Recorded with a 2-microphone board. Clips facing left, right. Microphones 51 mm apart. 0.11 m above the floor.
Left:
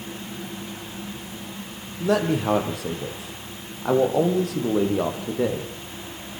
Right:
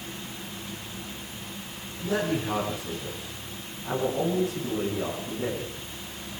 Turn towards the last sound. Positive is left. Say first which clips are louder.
# left 6 dB
turn(degrees=70)  # may be behind; listen again after turning